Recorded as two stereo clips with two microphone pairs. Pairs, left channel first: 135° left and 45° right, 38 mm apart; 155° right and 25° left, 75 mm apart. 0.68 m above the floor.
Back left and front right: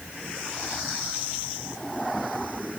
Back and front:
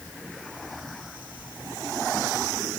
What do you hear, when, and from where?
Only background noise.